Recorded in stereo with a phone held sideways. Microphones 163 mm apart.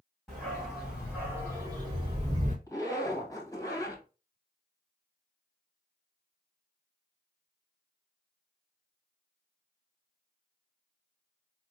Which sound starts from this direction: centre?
A dog barking, at 0.3 s.